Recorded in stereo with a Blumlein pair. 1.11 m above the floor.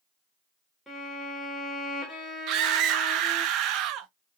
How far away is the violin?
About 1.5 m.